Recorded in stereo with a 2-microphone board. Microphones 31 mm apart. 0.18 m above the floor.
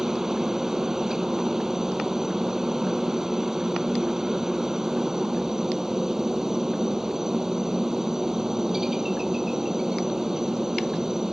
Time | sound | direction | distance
0.0 | a helicopter | 20° right (ahead or behind) | ?